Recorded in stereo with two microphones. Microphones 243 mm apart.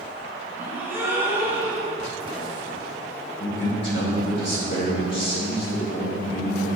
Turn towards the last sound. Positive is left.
turn(degrees=50)  # may be behind; listen again after turning